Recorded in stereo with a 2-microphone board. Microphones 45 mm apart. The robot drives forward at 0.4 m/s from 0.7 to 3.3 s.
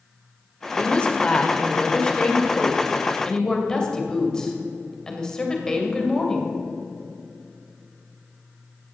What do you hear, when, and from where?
0.8 s a woman speaking: 25° left (ahead or behind), 1.6 m; by 6.5 s 15° left (ahead or behind), 2.5 m